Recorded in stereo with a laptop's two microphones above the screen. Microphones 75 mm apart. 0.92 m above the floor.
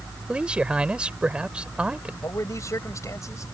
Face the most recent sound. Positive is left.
turn(degrees=45)  # may be behind; listen again after turning